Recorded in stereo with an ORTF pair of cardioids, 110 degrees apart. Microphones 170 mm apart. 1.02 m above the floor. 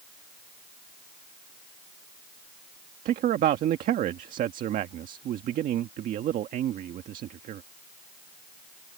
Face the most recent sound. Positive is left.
turn(degrees=-65)